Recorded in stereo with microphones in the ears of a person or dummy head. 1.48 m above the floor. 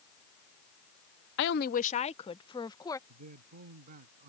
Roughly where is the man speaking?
Right.